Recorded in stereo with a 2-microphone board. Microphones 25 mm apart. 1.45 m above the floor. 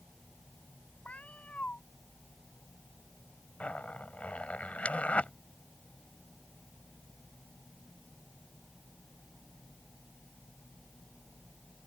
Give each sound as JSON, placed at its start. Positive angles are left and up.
{"t": 1.1, "sound": "a cat meowing", "side_deg": 75}
{"t": 3.6, "sound": "a zipper", "side_deg": 70}